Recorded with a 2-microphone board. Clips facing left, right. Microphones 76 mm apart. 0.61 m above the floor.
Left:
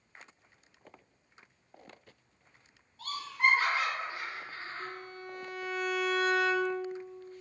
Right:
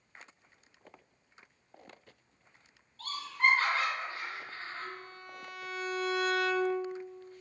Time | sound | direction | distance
3.0 | laughter | 10° left (ahead or behind) | 1.1 m
4.8 | a violin | 40° left (ahead or behind) | 0.6 m